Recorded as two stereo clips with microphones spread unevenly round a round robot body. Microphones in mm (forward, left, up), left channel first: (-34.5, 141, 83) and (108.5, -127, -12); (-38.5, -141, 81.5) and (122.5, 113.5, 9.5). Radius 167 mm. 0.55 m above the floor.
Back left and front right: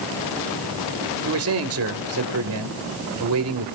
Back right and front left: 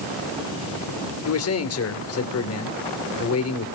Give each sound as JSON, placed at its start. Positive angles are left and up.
{"t": 1.2, "sound": "a man speaking", "azimuth_deg": -80, "distance_m": 2.5}